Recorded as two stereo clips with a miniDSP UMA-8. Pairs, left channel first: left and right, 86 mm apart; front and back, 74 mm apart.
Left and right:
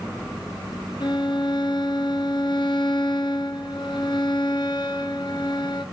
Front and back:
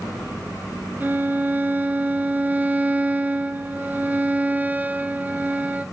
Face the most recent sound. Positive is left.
turn(degrees=115)